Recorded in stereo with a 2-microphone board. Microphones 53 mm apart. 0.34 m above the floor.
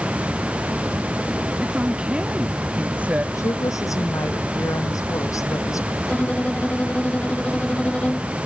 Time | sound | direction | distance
1.6 | a woman speaking | 15° right (ahead or behind) | ?
3.4 | a woman speaking | 80° left | ?
6.0 | a violin | 25° left (ahead or behind) | ?